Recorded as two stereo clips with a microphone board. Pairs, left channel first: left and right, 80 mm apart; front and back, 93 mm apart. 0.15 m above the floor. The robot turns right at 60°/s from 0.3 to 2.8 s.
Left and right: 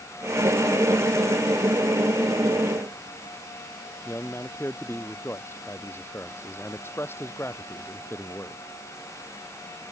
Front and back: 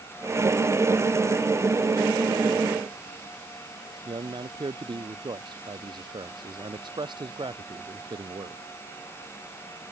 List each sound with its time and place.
4.0 s a man speaking: 150° left